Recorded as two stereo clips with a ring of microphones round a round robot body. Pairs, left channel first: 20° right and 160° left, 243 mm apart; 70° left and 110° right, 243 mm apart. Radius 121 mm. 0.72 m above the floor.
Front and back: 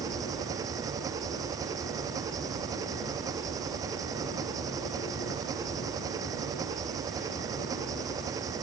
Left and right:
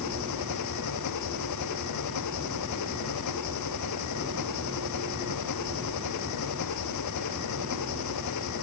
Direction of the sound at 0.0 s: 80° left.